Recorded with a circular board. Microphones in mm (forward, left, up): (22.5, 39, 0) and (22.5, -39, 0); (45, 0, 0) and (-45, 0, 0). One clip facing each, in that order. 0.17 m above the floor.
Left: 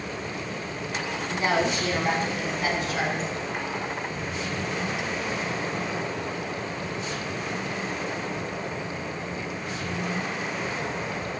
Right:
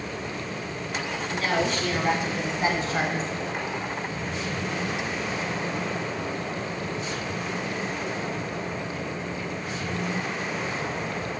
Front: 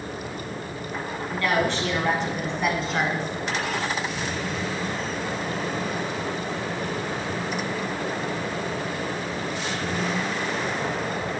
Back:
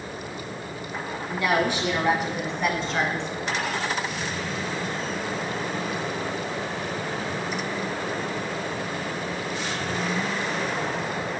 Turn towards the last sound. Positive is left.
turn(degrees=-80)